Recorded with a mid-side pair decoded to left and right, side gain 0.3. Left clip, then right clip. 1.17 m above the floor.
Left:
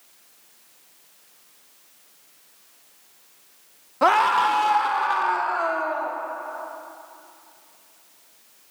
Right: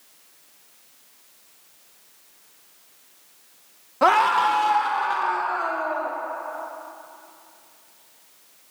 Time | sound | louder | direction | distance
4.0 | a scream | even | straight ahead | 1.0 m